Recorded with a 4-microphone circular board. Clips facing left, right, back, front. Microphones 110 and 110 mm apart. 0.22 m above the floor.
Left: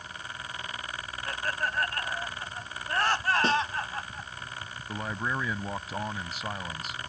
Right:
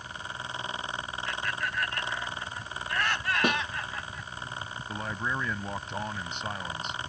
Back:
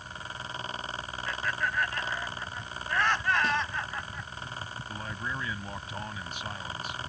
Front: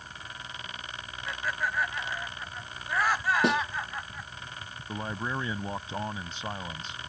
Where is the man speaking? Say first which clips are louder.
Left 1 dB, front 5 dB; 10° left.